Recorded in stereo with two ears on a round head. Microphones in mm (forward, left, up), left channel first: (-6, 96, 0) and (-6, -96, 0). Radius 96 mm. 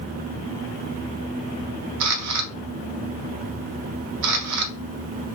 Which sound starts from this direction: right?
A camera shutter, at 2.0 s.